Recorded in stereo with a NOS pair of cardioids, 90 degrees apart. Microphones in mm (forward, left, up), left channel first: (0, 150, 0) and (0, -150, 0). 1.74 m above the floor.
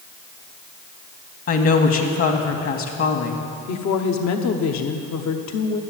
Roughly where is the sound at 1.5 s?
Ahead left.